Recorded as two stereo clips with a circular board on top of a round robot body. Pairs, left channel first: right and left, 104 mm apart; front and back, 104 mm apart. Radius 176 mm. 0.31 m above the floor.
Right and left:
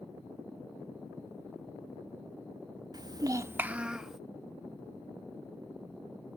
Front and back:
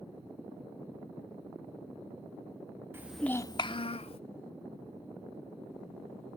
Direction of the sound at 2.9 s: 120° left.